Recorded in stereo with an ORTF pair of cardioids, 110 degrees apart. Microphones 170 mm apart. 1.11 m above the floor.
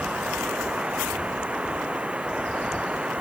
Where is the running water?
10° right.